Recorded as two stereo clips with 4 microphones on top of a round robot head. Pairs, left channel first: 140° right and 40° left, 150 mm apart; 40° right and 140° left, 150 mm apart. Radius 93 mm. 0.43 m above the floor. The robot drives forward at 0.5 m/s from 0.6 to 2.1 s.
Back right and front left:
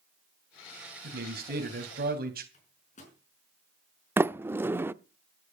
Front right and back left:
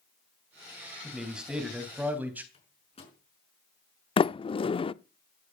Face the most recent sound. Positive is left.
turn(degrees=-25)